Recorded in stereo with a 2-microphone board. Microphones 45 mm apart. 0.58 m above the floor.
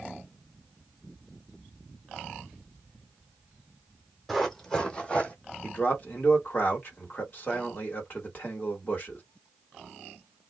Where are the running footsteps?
5° left (ahead or behind), 1.1 m; by 5.3 s 30° left (ahead or behind), 1.2 m.